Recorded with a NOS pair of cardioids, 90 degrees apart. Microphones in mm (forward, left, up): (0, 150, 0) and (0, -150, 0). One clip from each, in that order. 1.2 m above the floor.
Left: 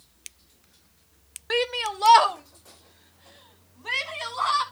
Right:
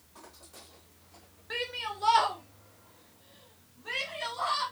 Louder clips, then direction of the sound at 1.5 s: Left 9 dB; 65° left.